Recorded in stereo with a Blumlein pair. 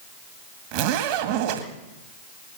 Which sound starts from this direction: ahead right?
A zipper, at 0.7 s.